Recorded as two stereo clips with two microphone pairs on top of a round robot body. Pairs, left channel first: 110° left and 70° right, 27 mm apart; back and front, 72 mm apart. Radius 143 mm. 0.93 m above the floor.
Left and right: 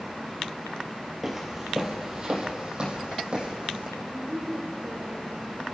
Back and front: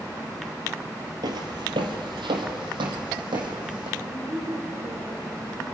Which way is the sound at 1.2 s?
15° left.